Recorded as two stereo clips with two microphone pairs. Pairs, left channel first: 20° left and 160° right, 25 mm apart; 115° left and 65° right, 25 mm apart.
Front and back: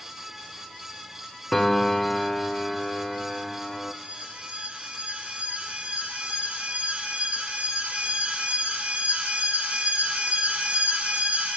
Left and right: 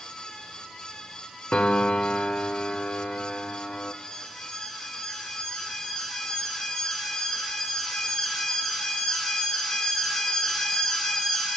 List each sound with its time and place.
1.5 s a piano: 90° left, 1.0 m
4.0 s an alarm: 175° right, 7 m